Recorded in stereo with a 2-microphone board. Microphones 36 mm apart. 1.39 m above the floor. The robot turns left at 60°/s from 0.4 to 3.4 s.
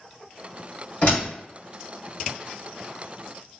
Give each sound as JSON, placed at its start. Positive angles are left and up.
{"t": 1.0, "sound": "a door slam", "side_deg": 35, "distance_m": 1.7}